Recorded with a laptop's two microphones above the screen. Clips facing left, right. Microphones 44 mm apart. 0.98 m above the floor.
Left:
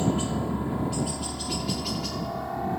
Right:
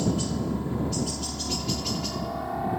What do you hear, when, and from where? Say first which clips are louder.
0.0 s a helicopter: left 1 dB; 25° left (ahead or behind); by 2.8 s 5° right (ahead or behind)